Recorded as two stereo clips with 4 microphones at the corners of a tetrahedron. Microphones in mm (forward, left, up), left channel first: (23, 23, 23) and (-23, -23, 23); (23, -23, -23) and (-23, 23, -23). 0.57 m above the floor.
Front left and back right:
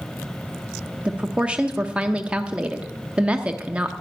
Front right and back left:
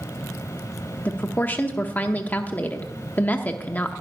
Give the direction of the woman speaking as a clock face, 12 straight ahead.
3 o'clock.